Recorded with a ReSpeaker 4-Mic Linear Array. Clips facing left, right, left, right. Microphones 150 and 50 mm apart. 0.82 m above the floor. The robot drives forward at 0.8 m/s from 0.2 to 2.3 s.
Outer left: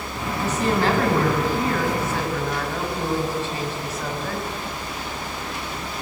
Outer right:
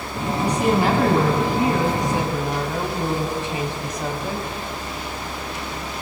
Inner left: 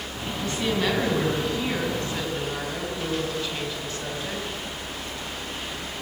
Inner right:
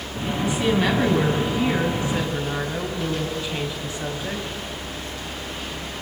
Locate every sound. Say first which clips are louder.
0.4 s a woman speaking: outer right 2 dB, inner right 4 dB; 15° right (ahead or behind), 6.5 m